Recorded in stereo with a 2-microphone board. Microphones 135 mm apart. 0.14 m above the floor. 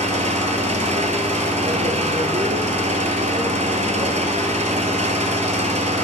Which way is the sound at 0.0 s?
55° right (ahead or behind).